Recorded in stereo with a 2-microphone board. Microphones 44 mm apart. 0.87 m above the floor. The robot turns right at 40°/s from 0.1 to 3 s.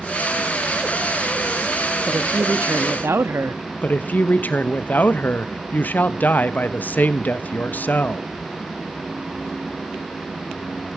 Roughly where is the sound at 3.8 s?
Left.